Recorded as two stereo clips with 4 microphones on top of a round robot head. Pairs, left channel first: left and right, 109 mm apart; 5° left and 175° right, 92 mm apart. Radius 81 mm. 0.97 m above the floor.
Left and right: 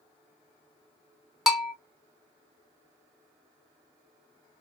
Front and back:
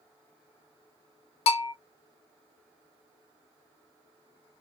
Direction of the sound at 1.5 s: 5° right.